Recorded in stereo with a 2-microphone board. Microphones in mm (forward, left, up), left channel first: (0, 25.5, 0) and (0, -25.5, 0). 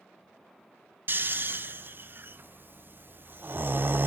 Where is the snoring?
40° right (ahead or behind), 0.5 m.